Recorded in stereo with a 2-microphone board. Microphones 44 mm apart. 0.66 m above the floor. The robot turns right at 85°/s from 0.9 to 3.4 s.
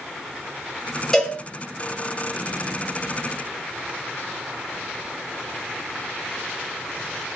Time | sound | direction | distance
1.1 | a cowbell | 10° left (ahead or behind) | 2.5 m